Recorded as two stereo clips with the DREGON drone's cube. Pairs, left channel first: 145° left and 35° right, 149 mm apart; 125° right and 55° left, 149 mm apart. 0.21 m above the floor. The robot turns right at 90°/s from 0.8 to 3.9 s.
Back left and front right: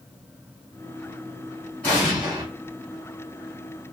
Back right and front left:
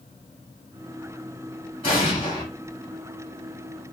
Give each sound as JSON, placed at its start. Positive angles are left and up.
{"t": 1.8, "sound": "an explosion", "azimuth_deg": -145, "distance_m": 1.9}